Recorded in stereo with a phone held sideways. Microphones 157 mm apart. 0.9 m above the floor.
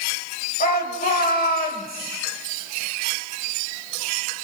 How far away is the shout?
About 5 m.